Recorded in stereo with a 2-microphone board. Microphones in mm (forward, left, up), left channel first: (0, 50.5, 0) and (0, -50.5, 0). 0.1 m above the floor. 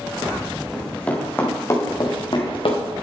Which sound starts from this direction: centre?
Running footsteps, at 0.7 s.